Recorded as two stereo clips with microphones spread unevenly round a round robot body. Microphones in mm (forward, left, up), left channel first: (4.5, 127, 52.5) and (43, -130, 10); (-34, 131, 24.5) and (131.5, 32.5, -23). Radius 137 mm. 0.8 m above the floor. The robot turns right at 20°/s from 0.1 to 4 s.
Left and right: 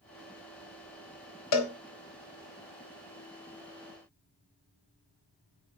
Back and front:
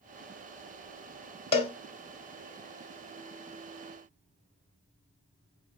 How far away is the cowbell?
About 1.3 m.